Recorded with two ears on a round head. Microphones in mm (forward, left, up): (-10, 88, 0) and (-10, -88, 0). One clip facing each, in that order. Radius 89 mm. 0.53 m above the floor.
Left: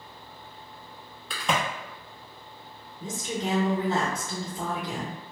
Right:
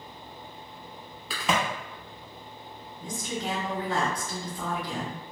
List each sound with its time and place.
1.3 s a crack: 5° right (ahead or behind), 0.6 m
3.0 s a woman speaking: 20° left (ahead or behind), 0.7 m